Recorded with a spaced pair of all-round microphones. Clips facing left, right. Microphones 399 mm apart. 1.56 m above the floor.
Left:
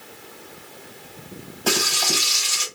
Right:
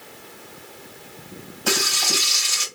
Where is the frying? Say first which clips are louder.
Left 1 dB; 65° left (ahead or behind), 3 m.